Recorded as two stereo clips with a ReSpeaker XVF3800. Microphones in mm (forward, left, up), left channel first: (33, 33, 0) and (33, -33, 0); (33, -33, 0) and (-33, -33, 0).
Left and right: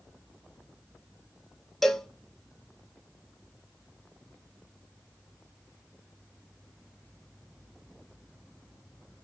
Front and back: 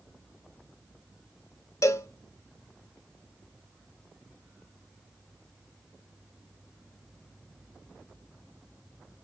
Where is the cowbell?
5° left, 0.5 m.